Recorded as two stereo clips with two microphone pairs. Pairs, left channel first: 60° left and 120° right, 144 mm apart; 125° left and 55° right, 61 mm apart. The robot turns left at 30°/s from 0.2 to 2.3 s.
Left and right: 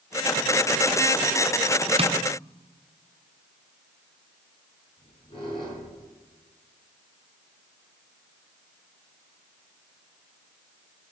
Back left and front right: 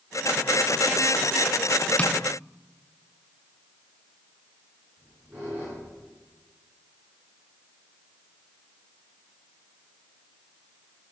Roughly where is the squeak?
Ahead.